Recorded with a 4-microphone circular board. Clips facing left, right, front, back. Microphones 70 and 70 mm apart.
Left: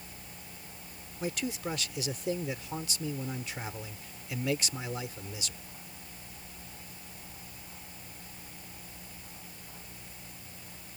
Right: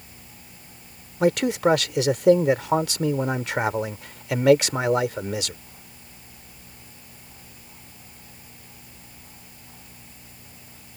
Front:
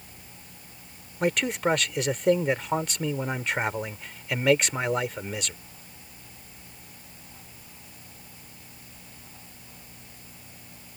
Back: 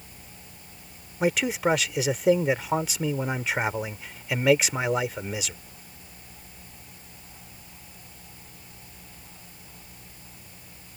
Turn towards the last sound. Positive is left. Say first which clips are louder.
# right 15 dB, back 1 dB
turn(degrees=-95)